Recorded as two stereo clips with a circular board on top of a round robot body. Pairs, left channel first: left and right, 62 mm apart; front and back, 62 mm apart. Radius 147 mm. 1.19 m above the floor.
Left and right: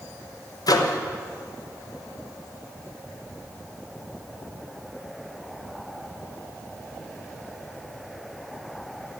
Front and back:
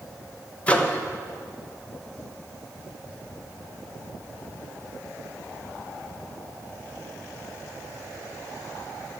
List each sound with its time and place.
0.7 s a microwave: 70° left, 1.0 m